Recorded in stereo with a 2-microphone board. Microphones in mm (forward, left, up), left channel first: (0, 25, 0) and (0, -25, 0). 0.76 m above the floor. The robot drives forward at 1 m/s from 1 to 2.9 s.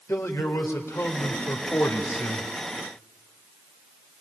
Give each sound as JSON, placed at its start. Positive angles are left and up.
{"t": 0.1, "sound": "a man speaking", "side_deg": 70, "distance_m": 3.0}